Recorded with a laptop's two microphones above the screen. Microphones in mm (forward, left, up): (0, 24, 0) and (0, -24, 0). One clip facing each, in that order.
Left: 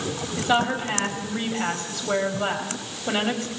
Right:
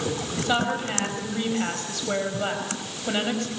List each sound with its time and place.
0.4 s a woman speaking: 5° left (ahead or behind), 6 m